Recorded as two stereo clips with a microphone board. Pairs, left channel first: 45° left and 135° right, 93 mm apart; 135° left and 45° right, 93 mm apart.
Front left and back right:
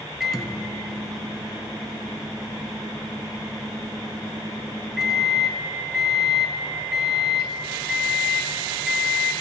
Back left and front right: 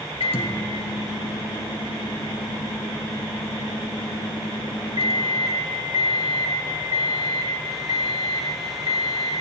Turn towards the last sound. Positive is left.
turn(degrees=135)